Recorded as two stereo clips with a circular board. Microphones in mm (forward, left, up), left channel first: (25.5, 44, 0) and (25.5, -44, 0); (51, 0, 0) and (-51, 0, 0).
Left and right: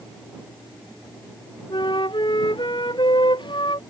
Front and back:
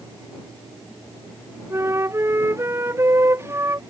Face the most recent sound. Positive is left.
turn(degrees=115)